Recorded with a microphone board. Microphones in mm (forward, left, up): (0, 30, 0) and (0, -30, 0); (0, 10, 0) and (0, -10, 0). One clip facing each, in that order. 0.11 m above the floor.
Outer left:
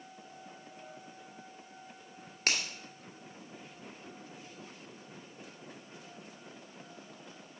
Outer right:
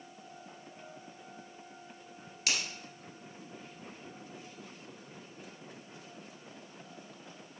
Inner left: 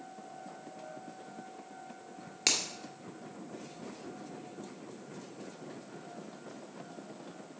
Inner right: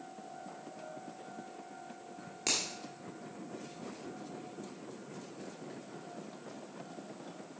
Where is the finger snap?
50° left (ahead or behind), 1.9 m.